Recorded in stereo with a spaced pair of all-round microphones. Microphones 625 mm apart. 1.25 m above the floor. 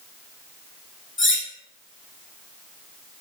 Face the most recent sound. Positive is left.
turn(degrees=20)  # may be behind; listen again after turning